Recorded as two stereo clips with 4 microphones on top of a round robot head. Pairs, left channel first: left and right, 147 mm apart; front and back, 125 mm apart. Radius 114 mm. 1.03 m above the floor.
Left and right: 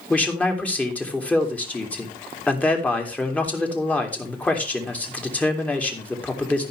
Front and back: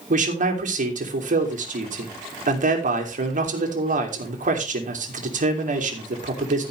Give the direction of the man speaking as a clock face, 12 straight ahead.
6 o'clock.